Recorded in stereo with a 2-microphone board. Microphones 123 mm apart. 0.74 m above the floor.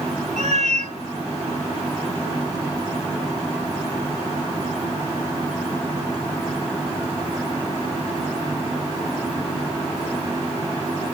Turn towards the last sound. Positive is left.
turn(degrees=-75)  # may be behind; listen again after turning